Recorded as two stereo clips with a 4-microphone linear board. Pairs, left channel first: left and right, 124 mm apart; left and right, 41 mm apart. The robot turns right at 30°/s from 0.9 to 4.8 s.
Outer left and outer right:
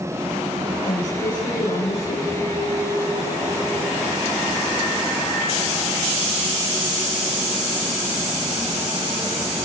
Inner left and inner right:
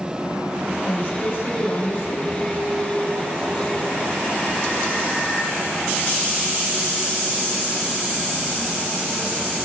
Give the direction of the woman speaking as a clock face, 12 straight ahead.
9 o'clock.